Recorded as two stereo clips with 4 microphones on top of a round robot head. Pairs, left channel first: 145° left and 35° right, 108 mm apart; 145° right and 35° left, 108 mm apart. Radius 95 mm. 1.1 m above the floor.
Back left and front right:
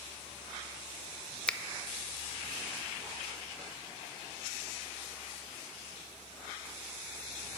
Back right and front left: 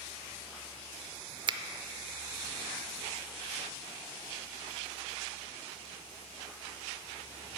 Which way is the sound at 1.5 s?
65° left.